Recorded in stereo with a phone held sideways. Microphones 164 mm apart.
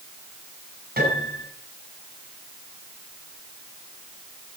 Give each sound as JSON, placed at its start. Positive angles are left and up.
{"t": 1.0, "sound": "a piano", "side_deg": -60, "distance_m": 6.0}